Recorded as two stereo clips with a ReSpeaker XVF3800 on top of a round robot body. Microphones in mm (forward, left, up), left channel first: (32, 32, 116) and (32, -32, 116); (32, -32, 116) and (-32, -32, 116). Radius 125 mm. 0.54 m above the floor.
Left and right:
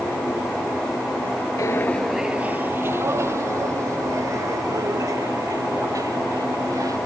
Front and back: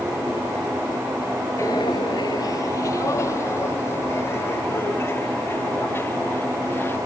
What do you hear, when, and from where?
1.6 s footsteps: 60° left; by 7.0 s 55° right